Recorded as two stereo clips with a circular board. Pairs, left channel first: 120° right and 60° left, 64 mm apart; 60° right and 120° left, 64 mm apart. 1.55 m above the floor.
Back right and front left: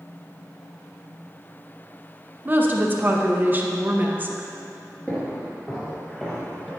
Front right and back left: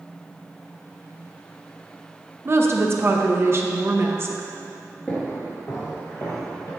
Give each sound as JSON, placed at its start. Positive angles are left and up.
{"t": 2.5, "sound": "a woman speaking", "azimuth_deg": 105, "distance_m": 0.6}
{"t": 5.1, "sound": "footsteps", "azimuth_deg": -90, "distance_m": 1.7}